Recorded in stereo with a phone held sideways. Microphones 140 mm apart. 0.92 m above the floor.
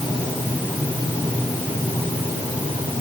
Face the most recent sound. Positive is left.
No sound to turn to.